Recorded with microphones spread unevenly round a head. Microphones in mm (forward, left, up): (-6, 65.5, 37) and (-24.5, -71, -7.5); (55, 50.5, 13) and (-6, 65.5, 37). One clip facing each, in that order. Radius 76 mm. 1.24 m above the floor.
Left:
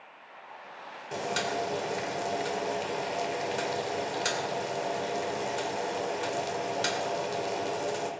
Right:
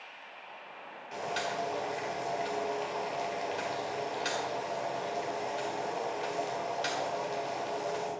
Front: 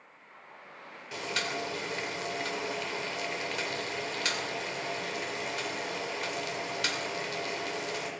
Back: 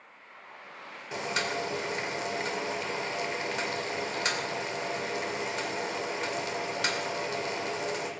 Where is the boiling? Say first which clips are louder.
Left 3 dB, back 3 dB; 110° left, 2.5 m.